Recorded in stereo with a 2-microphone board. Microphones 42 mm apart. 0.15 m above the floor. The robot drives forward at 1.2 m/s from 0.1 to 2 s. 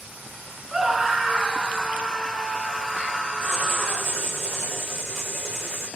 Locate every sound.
0.7 s a scream: 10° right (ahead or behind), 1.2 m; by 4.2 s 5° right (ahead or behind), 2.5 m
3.4 s writing: 15° right (ahead or behind), 5 m